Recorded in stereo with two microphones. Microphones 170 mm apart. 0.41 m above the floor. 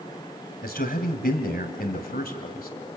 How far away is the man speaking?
About 2.5 m.